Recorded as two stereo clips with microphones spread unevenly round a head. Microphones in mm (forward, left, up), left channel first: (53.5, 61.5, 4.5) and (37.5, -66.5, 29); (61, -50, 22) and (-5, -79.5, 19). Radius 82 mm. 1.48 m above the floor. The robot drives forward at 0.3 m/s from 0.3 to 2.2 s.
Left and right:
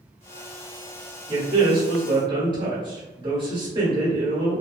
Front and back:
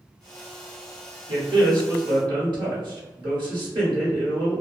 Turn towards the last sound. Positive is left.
turn(degrees=-165)